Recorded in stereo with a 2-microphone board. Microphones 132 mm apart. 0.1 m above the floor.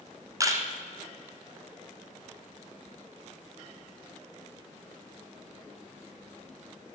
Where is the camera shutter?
25° right (ahead or behind), 1.8 m.